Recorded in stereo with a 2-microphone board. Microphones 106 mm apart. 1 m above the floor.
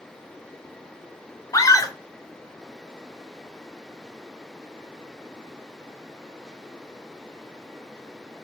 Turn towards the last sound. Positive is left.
turn(degrees=30)  # may be behind; listen again after turning